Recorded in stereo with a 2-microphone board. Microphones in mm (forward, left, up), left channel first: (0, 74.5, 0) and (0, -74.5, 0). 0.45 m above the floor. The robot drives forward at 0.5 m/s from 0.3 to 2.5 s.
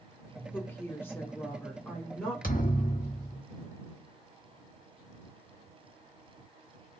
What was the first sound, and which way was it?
A woman speaking, 15° left (ahead or behind).